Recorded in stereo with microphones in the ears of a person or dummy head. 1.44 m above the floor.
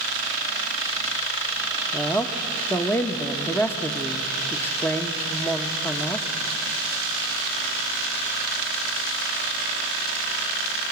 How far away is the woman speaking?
About 1.3 m.